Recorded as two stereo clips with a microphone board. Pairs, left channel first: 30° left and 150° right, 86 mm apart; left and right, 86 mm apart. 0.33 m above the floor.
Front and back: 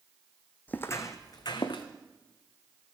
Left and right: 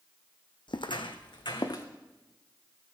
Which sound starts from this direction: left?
Footsteps, at 0.7 s.